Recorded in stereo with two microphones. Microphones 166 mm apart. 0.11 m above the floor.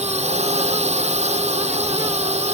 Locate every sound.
0.0 s a drone: 40° right (ahead or behind)